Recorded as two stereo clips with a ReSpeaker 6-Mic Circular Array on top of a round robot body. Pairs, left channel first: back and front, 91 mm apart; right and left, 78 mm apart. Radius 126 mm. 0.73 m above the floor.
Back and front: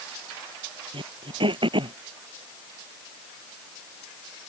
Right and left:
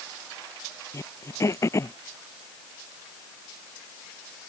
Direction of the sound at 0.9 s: 30° right.